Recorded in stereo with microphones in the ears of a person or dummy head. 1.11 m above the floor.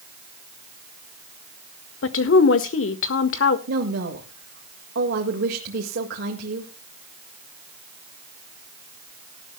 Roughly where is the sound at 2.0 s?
Left.